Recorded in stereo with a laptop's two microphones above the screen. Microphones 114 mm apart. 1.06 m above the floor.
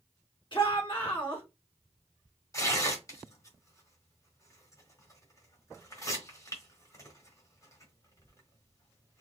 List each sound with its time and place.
0.5 s a shout: 45° left (ahead or behind), 1.9 m
2.5 s tearing paper: 30° left (ahead or behind), 1.3 m